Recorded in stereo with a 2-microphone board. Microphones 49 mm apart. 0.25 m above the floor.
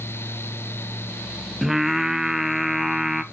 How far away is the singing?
About 0.5 m.